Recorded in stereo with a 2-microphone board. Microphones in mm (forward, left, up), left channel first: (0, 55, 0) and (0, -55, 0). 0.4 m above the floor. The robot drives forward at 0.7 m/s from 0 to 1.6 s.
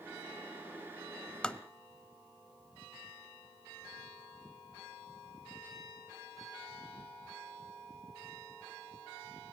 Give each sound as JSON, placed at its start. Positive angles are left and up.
{"t": 1.4, "sound": "tapping", "side_deg": 10, "distance_m": 0.8}